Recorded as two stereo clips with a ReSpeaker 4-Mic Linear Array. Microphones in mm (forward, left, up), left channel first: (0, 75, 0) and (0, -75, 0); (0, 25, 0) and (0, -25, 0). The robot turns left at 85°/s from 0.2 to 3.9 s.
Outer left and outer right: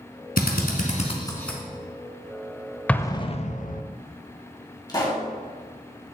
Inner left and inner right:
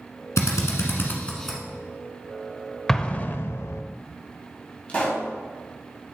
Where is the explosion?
170° left, 0.5 m; by 3.8 s 90° left, 0.5 m.